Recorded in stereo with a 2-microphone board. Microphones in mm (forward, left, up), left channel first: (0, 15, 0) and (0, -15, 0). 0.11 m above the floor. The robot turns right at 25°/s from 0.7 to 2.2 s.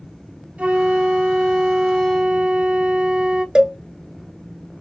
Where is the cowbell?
30° right (ahead or behind), 0.5 m.